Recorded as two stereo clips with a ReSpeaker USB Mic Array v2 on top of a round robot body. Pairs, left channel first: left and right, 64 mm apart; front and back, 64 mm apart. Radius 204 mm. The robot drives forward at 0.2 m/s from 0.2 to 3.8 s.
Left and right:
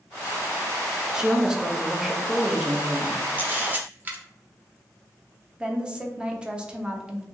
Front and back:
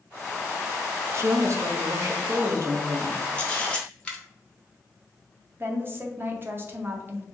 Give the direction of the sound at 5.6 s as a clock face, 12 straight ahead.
5 o'clock.